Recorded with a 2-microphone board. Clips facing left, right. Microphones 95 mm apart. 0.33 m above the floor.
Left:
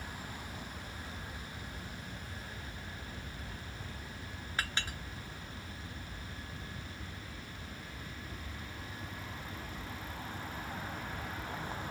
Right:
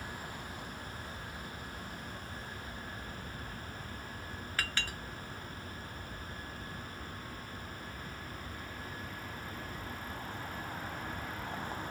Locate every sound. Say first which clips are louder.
4.6 s a clink: left 1 dB; 20° left (ahead or behind), 1.4 m